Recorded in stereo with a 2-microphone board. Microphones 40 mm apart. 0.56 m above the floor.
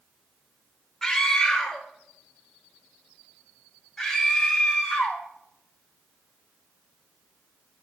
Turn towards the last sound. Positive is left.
turn(degrees=10)  # may be behind; listen again after turning